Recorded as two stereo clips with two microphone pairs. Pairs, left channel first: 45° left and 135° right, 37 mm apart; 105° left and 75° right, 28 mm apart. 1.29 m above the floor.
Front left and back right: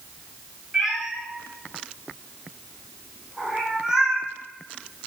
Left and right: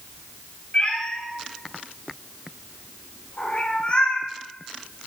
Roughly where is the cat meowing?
Behind left.